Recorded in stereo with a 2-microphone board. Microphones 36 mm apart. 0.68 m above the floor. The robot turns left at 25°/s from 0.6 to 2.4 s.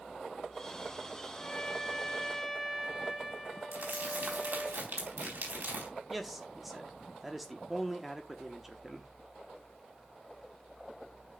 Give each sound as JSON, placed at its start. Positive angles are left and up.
{"t": 1.4, "sound": "a trumpet", "side_deg": 25, "distance_m": 2.0}
{"t": 3.7, "sound": "crumpling", "side_deg": -75, "distance_m": 4.0}
{"t": 6.1, "sound": "a man speaking", "side_deg": 0, "distance_m": 1.0}